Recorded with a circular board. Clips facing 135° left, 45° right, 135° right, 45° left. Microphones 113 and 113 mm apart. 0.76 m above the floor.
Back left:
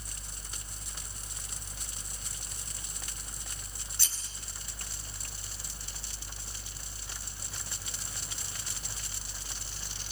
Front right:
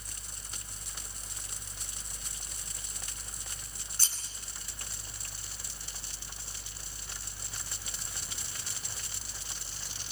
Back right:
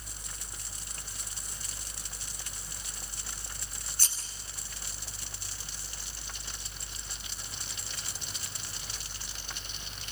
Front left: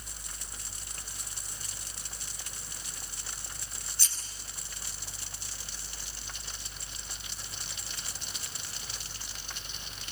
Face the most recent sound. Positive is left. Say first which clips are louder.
# front right 2 dB, back right 2 dB
turn(degrees=-90)